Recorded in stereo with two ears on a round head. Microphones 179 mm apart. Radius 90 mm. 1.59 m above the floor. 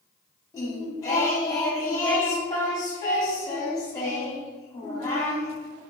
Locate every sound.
0.5 s singing: 20° left (ahead or behind), 1.6 m